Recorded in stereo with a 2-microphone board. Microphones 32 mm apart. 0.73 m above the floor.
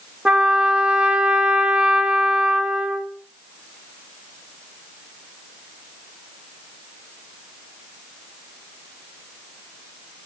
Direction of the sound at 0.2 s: 30° right (ahead or behind).